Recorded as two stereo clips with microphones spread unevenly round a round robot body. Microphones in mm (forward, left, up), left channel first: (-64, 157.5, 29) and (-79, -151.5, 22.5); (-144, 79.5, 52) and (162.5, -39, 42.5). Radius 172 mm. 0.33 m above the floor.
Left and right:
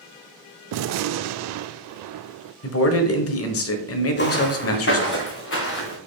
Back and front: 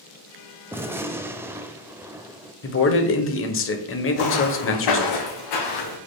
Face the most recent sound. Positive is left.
turn(degrees=140)